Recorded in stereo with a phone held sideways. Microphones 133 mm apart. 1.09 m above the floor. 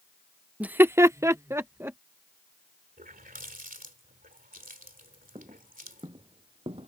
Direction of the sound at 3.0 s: 90° right.